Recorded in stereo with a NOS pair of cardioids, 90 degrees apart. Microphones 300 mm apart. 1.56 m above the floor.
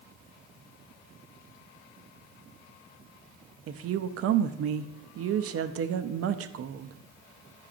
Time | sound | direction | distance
3.7 | a woman speaking | 50° right | 0.5 m